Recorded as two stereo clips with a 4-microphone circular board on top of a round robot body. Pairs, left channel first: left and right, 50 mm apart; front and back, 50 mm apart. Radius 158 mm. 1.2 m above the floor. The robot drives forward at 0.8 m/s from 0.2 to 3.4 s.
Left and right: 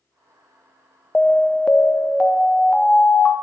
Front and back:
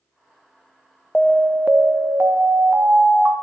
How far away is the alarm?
About 0.5 m.